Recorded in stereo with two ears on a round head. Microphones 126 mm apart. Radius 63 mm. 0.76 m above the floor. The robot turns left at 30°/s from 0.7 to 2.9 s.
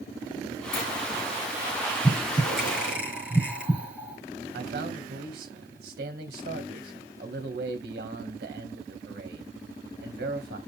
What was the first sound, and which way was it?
A sliding door, 65° left (ahead or behind).